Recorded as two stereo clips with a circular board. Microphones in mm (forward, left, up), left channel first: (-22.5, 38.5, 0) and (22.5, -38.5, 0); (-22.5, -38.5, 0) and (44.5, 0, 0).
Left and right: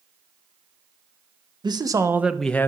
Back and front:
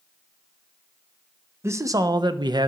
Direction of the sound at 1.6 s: 25° right.